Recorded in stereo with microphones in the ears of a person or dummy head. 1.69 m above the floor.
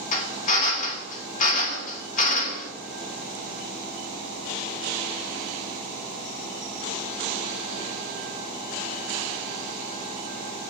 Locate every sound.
0.1 s a drill: 45° left (ahead or behind), 1.0 m